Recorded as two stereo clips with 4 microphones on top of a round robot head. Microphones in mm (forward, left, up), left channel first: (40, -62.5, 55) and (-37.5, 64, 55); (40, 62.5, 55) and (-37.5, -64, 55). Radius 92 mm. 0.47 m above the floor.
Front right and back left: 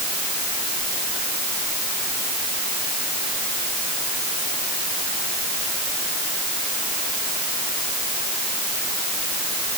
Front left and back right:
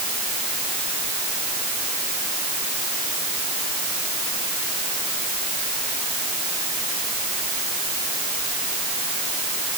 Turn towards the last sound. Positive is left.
No sound to turn to.